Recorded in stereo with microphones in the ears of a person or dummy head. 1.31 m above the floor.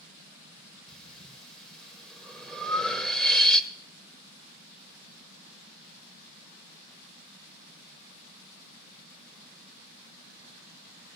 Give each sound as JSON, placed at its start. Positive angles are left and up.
{"t": 0.9, "sound": "breathing", "side_deg": 5, "distance_m": 1.1}